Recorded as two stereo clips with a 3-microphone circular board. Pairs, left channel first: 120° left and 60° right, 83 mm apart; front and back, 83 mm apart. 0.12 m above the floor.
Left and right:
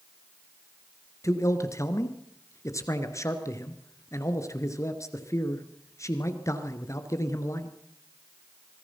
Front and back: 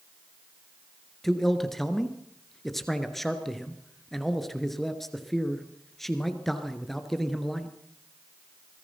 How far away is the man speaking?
About 2.5 m.